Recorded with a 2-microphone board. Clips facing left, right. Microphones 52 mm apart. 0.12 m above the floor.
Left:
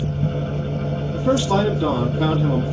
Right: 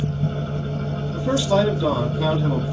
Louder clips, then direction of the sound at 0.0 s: Left 2 dB; 30° left (ahead or behind).